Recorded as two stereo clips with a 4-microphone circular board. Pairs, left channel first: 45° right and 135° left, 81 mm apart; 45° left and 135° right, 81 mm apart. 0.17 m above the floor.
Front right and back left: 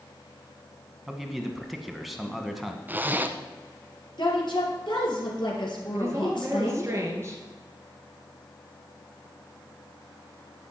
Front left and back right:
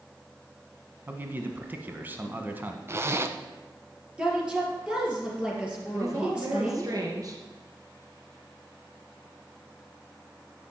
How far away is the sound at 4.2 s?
About 3 m.